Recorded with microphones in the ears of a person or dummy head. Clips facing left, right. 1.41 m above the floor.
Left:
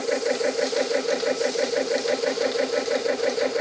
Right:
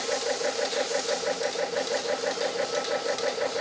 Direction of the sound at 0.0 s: 45° left (ahead or behind).